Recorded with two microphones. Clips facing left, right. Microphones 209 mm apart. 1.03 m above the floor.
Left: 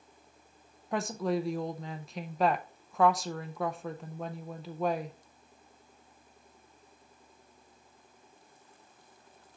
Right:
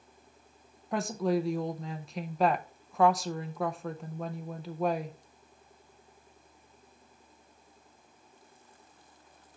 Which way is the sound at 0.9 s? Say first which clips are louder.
Right 2 dB; centre (ahead or behind).